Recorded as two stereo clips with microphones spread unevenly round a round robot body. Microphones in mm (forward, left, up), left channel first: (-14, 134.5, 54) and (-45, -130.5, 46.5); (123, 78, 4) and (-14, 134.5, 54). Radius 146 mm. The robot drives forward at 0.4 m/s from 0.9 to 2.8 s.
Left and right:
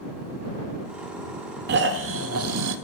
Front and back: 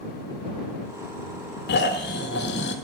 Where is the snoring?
40° right, 1.0 m; by 2.8 s 65° right, 0.8 m.